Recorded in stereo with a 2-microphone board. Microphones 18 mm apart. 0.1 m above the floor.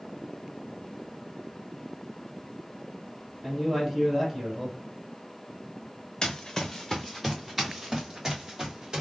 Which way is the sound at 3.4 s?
25° right (ahead or behind).